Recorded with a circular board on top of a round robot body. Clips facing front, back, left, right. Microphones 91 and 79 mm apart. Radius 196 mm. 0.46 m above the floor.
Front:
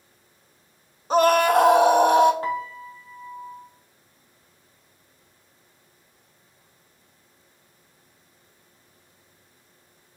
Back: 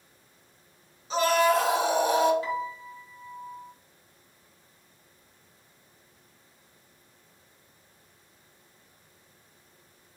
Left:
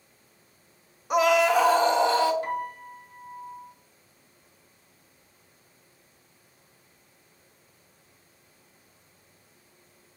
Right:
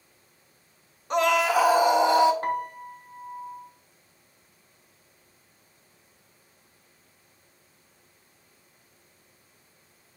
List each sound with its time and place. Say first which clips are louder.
1.1 s a scream: front 5 dB, left 2 dB; 10° left, 1.2 m; by 2.3 s 20° right, 1.6 m
2.4 s a piano: front 3 dB, right 2 dB; 45° right, 0.9 m